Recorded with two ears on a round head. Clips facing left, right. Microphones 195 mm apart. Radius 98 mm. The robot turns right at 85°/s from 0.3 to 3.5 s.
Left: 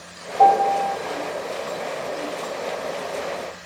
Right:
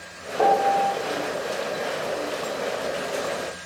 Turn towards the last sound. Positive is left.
turn(degrees=-120)